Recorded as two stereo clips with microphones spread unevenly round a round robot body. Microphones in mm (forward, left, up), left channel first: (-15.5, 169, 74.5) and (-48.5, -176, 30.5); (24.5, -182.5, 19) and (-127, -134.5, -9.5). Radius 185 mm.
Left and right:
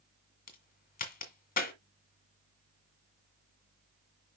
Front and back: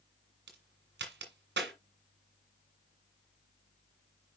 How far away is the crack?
About 1.8 m.